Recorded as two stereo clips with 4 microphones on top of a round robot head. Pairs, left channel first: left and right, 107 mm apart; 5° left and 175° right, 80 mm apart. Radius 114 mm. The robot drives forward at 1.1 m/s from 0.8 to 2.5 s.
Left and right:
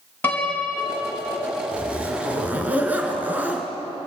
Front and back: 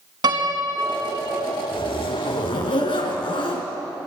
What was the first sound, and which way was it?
A piano, 165° left.